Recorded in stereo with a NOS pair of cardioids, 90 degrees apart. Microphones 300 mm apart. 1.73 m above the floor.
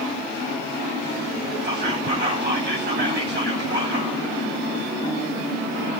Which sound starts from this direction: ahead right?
Whispering, at 1.6 s.